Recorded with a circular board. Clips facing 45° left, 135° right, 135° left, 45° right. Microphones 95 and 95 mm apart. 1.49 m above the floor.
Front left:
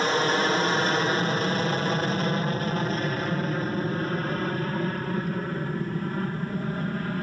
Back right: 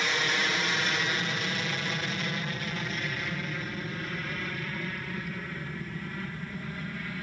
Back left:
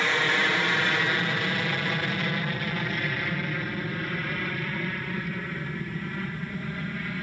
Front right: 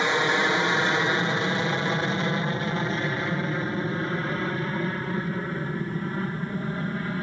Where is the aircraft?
15° left; by 7.2 s 10° left.